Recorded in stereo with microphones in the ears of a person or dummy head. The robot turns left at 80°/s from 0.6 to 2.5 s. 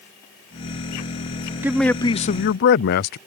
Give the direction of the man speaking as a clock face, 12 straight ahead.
6 o'clock.